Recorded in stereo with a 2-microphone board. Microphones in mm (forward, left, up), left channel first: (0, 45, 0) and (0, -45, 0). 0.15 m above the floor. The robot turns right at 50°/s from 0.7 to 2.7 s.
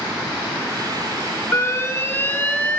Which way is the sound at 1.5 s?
25° left (ahead or behind).